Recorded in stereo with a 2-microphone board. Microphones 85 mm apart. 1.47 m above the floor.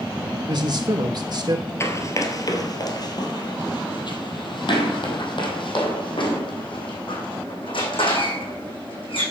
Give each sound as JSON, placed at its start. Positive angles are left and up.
{"t": 0.5, "sound": "a man speaking", "side_deg": -50, "distance_m": 1.9}
{"t": 1.8, "sound": "running footsteps", "side_deg": 30, "distance_m": 1.7}